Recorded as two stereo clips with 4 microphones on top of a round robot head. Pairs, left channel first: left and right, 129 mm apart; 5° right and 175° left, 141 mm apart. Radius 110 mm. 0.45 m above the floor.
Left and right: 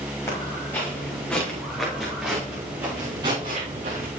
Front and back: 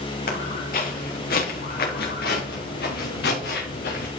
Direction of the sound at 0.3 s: 15° left.